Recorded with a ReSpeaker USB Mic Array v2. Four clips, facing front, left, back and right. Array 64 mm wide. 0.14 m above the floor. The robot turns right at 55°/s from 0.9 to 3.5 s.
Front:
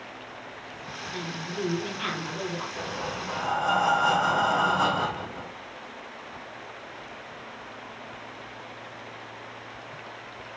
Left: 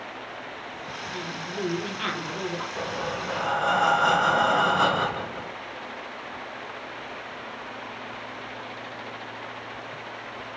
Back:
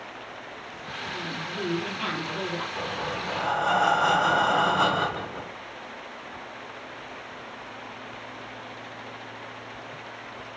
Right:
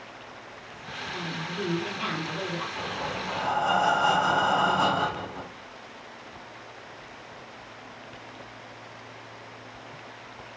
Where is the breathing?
85° left, 1.0 m; by 5.5 s 130° left, 1.0 m.